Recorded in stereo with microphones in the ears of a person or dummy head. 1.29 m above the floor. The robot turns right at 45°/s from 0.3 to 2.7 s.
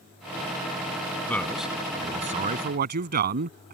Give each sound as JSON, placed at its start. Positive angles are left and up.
{"t": 1.3, "sound": "a man speaking", "azimuth_deg": 165}